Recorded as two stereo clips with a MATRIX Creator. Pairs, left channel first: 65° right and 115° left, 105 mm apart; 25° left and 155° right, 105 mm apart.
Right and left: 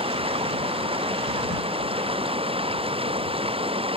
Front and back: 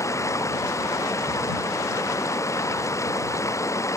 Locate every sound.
0.0 s running water: 85° left